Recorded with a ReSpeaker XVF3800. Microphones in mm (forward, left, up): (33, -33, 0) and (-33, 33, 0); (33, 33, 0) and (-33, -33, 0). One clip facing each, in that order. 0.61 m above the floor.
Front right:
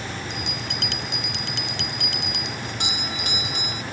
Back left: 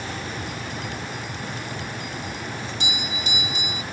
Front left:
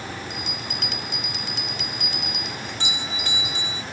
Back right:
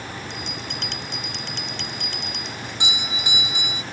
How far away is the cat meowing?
I don't hear a cat meowing.